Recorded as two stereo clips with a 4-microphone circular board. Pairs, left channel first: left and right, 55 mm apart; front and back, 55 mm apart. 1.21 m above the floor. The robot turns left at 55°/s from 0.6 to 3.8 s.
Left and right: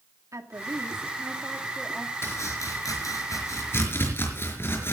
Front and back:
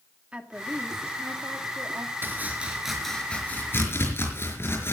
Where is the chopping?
130° left, 5 m; by 4.9 s 45° left, 5 m.